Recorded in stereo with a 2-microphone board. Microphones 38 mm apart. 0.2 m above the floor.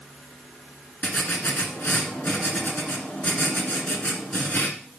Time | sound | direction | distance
1.0 | writing | 50° left (ahead or behind) | 1.7 m